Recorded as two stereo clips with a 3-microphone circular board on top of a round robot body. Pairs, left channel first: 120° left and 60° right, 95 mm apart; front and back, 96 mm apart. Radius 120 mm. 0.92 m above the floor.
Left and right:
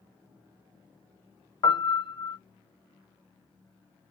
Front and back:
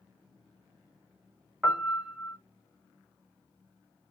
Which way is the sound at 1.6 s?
105° left.